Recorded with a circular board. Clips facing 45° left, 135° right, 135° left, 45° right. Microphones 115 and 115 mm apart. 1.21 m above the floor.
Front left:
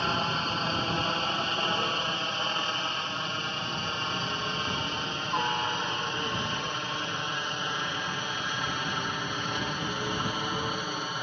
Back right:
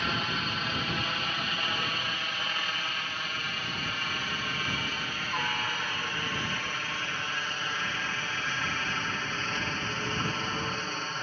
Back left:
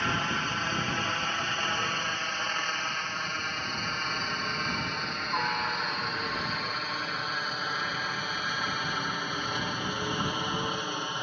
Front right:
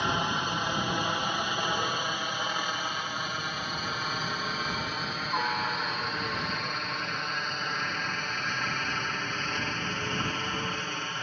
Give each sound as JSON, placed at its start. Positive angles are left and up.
{"t": 0.0, "sound": "a helicopter", "azimuth_deg": 15}